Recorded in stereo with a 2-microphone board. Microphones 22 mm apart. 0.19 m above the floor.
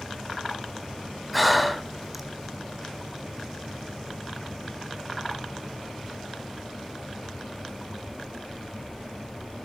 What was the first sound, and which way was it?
Breathing, centre (ahead or behind).